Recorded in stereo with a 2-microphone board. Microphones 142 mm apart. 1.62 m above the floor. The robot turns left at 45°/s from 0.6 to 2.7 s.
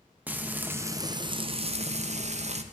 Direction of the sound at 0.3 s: 15° right.